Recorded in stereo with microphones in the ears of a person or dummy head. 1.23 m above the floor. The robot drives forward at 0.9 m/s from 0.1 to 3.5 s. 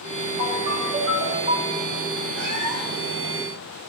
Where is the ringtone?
50° right (ahead or behind), 4 m; by 1.9 s 40° right (ahead or behind), 5 m.